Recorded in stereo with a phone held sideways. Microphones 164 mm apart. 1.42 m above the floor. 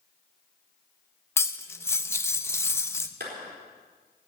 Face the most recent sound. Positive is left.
turn(degrees=-75)  # may be behind; listen again after turning